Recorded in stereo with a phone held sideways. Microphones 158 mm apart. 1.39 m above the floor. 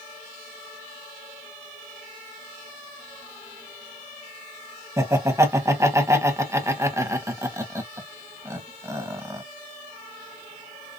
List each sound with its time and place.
5.0 s laughter: 20° right (ahead or behind), 1.2 m